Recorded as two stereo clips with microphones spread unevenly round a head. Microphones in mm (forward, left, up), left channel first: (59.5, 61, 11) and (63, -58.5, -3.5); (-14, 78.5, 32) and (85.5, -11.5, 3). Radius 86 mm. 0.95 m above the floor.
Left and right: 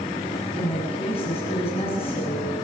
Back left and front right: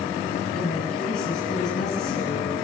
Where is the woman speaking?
165° left, 7.5 m.